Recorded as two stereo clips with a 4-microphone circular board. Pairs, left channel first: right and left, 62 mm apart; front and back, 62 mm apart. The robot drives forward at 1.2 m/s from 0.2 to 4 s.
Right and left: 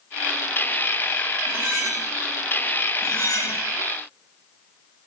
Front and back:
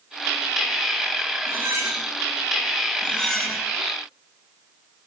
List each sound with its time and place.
1.5 s cutlery clinking: 130° left, 7 m; by 2.0 s 135° left, 7.5 m
3.0 s cutlery clinking: 70° right, 2 m; by 3.6 s 95° right, 2 m